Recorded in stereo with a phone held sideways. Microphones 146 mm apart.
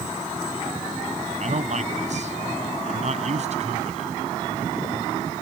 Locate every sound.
1.4 s a man speaking: 55° right (ahead or behind); by 4.1 s 50° right (ahead or behind)